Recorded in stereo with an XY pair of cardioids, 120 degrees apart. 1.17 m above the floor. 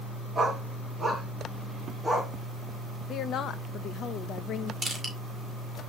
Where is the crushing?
15° right, 4 m.